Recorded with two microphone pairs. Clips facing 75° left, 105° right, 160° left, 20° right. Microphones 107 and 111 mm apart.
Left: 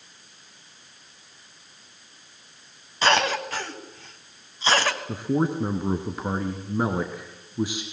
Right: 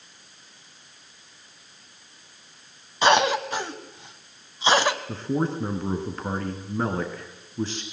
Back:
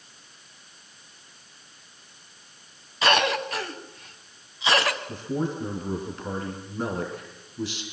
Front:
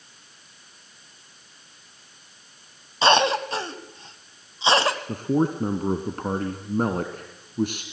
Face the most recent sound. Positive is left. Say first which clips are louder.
# left 2 dB, front 6 dB
turn(degrees=0)